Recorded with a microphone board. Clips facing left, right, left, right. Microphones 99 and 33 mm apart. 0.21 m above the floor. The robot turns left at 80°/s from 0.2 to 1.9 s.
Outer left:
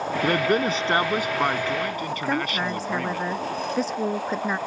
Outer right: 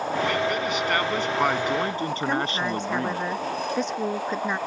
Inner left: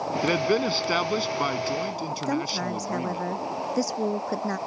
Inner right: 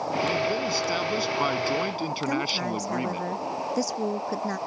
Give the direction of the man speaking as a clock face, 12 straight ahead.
9 o'clock.